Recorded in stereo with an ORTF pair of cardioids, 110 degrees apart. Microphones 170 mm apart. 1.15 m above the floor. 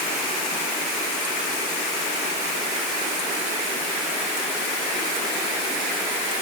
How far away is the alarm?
No alarm in this recording.